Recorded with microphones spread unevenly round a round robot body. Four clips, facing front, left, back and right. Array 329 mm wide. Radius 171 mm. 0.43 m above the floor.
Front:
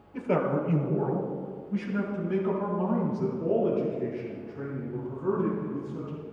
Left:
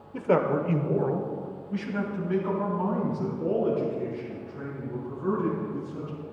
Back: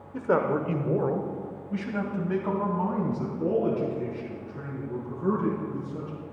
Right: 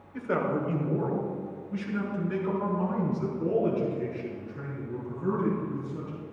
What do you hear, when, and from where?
0.1 s a man speaking: 120° left, 1.2 m; by 6.2 s straight behind, 6.5 m